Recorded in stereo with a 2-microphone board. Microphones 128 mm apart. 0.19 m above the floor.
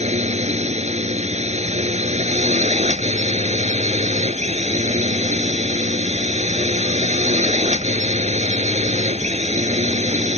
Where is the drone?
60° right (ahead or behind).